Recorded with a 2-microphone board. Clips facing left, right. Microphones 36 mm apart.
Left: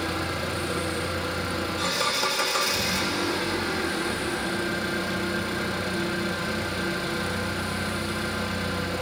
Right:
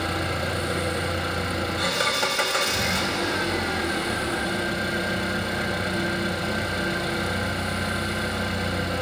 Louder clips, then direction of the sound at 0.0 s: Right 2 dB; 55° right (ahead or behind).